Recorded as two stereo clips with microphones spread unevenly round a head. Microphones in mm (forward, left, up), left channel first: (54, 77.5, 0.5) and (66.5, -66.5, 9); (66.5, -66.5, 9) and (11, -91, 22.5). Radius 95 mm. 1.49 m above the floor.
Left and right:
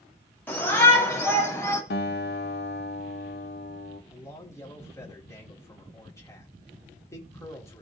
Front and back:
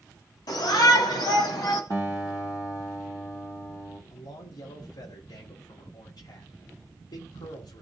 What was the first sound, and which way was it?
A shout, 20° left.